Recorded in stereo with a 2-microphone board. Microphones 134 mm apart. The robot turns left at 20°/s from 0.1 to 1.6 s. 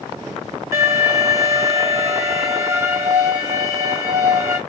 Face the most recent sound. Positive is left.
turn(degrees=-20)  # may be behind; listen again after turning